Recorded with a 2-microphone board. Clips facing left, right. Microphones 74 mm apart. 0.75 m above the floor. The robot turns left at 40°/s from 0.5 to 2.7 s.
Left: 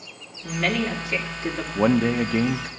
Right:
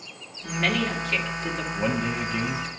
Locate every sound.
0.4 s a woman speaking: 175° right, 2 m; by 1.6 s 140° left, 2 m
1.8 s a man speaking: 105° left, 0.9 m; by 2.7 s 70° left, 0.9 m